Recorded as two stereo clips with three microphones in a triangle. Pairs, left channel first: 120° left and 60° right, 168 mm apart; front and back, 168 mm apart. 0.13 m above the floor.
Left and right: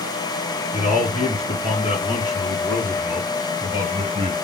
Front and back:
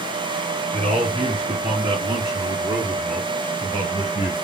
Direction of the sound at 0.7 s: 145° left.